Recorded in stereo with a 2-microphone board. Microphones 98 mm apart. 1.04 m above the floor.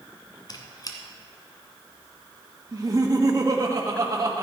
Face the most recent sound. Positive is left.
turn(degrees=-35)  # may be behind; listen again after turning